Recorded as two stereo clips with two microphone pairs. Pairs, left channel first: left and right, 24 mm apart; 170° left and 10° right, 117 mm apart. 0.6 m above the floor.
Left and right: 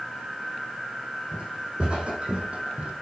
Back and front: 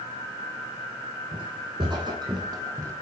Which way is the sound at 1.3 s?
50° right.